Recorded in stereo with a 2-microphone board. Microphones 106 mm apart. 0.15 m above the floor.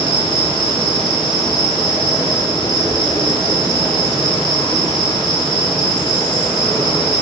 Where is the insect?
50° left (ahead or behind), 0.7 m.